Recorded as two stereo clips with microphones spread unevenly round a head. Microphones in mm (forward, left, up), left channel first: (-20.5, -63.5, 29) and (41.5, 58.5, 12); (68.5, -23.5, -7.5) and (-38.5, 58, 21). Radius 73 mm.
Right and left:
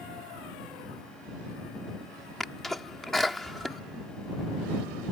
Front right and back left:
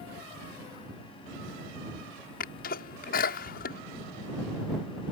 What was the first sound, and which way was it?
A sneeze, 30° right.